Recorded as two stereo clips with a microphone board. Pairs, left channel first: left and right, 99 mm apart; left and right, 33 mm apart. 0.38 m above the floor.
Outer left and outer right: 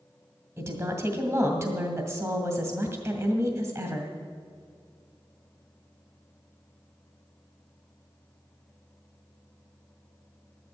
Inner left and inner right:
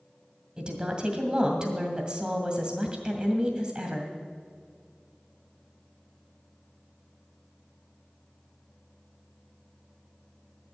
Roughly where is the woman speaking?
Right.